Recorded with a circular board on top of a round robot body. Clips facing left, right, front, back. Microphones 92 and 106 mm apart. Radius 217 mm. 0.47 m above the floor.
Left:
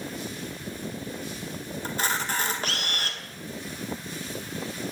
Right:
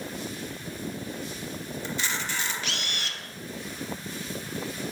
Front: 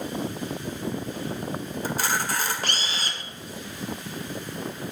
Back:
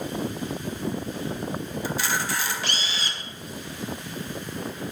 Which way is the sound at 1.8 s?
45° left.